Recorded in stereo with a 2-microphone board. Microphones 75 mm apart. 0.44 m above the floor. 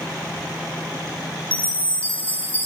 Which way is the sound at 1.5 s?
20° left (ahead or behind).